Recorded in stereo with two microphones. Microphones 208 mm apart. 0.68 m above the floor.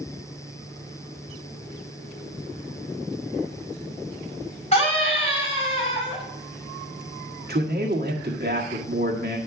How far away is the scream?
About 4.5 m.